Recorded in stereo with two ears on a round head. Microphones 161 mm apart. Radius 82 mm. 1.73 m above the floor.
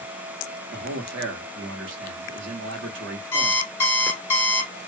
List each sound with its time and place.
0.7 s a man speaking: 80° right, 1.3 m
3.3 s an alarm clock: 15° left (ahead or behind), 1.0 m